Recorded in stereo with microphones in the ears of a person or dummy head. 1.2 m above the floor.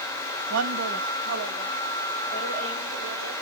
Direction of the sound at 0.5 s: 75° right (ahead or behind).